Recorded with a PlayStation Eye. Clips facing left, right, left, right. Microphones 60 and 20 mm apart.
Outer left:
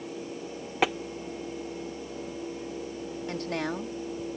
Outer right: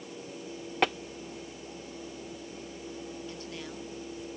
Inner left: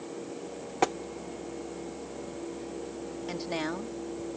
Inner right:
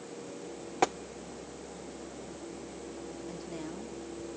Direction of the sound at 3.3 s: 75° left (ahead or behind).